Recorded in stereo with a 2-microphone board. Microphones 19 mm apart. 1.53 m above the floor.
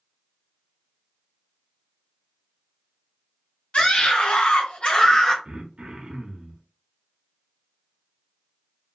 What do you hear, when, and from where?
3.7 s a scream: 65° left (ahead or behind), 1.5 m; by 5.3 s 30° left (ahead or behind), 1.2 m
5.5 s throat clearing: 60° right (ahead or behind), 0.7 m